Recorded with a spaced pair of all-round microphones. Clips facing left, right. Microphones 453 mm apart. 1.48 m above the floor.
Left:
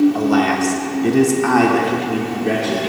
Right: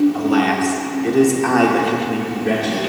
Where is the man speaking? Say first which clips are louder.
Left 1 dB; 55° left (ahead or behind), 1.0 m; by 2.8 s 10° right (ahead or behind), 1.6 m.